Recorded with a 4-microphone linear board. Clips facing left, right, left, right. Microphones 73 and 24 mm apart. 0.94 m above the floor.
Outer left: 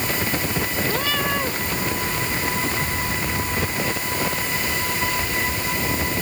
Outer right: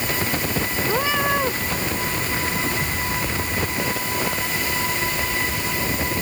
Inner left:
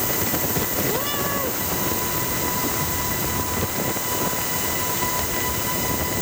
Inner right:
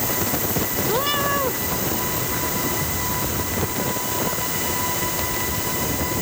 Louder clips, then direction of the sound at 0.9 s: Outer right 5 dB, inner right 3 dB; 20° right (ahead or behind).